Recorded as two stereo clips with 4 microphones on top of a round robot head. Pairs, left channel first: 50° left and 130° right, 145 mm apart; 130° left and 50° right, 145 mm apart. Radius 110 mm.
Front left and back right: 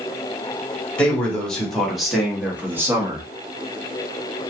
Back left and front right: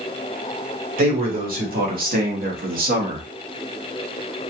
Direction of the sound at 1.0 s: 30° right.